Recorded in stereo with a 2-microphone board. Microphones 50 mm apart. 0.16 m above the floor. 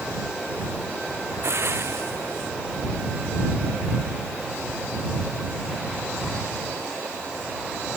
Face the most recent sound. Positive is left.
turn(degrees=-60)  # may be behind; listen again after turning